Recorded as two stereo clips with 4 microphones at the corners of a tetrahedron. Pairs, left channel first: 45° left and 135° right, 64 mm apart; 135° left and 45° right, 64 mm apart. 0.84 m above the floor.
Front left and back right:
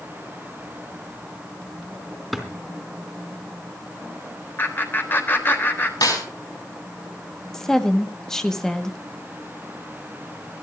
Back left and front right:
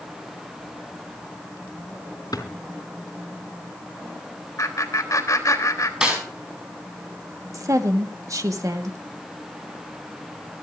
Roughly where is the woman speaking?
Ahead right.